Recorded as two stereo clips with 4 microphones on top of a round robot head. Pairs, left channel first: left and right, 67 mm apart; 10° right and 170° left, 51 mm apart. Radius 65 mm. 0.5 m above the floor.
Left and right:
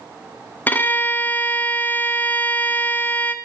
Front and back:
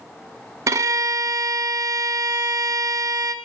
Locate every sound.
0.7 s a violin: 150° left, 0.8 m